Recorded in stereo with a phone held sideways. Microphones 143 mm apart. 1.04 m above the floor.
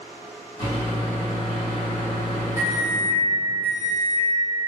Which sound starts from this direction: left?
A microwave, at 0.6 s.